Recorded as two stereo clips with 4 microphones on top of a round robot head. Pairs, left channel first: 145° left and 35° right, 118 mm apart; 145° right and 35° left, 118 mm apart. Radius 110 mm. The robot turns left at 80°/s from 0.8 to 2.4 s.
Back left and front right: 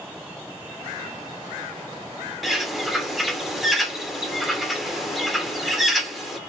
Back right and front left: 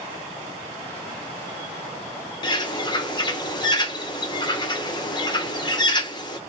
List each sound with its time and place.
2.4 s a bird: 125° right, 1.1 m